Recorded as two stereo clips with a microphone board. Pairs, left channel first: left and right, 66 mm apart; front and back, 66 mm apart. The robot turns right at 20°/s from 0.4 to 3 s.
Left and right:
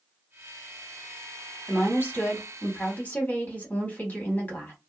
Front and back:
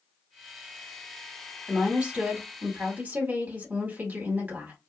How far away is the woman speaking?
About 1.7 m.